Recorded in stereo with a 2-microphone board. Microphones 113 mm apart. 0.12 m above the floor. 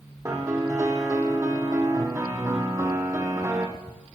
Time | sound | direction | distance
0.2 | a piano | 25° right (ahead or behind) | 2.0 m